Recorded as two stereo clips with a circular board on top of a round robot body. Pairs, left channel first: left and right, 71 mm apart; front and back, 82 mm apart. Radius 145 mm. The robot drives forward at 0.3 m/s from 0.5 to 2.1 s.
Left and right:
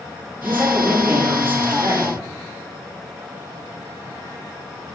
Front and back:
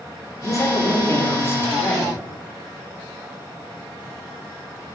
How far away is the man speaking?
About 1.5 m.